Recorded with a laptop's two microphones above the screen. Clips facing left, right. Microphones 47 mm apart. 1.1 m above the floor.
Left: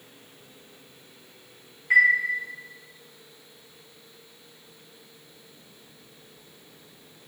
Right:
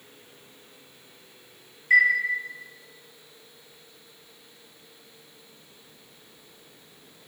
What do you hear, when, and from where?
1.9 s a chime: 55° left (ahead or behind), 3.5 m